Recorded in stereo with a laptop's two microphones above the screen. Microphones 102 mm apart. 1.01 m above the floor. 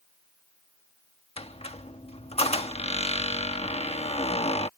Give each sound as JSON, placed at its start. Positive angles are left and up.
{"t": 1.4, "sound": "a squeak", "side_deg": 90}